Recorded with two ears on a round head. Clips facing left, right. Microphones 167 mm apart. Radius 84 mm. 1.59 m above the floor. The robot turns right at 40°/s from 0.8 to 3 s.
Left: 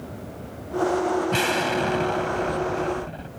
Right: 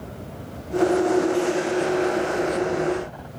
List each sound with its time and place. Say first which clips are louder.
1.3 s an explosion: right 3 dB; 85° left; by 3.3 s 150° left